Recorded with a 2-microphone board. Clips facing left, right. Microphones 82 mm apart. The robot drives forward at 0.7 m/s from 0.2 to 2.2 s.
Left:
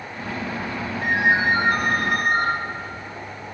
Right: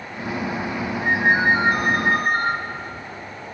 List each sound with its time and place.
1.0 s a ringtone: 50° left (ahead or behind), 3 m; by 2.5 s 65° left (ahead or behind), 2.5 m